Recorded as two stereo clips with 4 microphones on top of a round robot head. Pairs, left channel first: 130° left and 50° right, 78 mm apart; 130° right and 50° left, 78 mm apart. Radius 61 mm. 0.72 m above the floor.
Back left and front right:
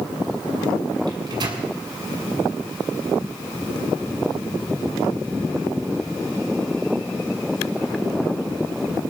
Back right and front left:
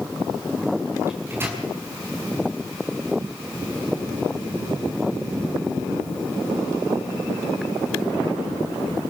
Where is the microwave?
15° right, 6.5 m.